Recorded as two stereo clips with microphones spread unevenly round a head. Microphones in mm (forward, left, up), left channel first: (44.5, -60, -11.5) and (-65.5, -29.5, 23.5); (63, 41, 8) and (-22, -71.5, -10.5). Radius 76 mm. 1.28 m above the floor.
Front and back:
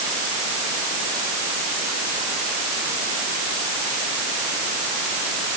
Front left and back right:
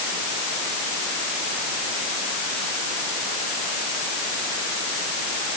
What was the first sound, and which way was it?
Only background noise.